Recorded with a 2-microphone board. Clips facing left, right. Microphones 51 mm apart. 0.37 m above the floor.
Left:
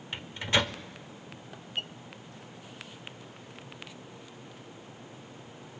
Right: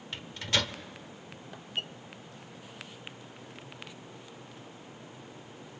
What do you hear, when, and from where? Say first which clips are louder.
0.1 s a microwave: left 3 dB; 20° left (ahead or behind), 0.6 m